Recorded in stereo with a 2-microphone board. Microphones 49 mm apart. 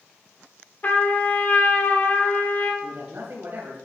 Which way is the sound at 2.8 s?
55° right (ahead or behind).